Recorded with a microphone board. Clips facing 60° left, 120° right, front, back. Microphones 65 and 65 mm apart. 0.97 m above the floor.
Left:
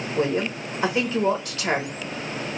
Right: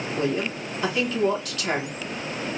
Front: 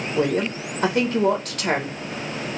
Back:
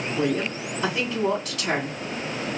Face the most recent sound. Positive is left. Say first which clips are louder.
# left 3 dB, front 4 dB
turn(degrees=5)